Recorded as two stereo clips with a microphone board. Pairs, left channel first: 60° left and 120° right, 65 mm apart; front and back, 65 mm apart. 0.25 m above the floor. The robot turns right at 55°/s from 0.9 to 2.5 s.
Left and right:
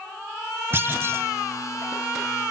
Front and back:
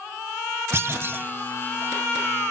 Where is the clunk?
155° right, 0.6 m; by 1.3 s 130° right, 0.6 m.